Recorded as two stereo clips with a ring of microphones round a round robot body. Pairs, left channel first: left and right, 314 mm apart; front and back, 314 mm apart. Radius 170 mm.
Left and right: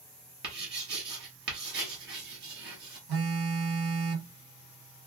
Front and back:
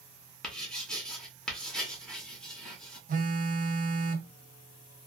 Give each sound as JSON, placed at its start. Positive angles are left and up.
{"t": 0.4, "sound": "writing", "azimuth_deg": -85, "distance_m": 1.1}
{"t": 3.1, "sound": "a phone buzzing", "azimuth_deg": -115, "distance_m": 0.7}